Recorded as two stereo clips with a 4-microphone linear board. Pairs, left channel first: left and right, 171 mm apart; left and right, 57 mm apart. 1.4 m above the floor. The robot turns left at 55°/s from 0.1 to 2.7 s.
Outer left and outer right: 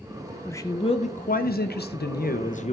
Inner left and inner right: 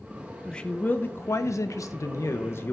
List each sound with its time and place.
0.5 s a man speaking: 170° left, 0.6 m; by 2.7 s 45° left, 0.6 m